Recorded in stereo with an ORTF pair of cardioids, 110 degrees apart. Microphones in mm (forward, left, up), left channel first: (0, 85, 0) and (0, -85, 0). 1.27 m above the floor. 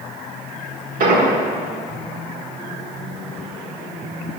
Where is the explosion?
60° right, 1.3 m.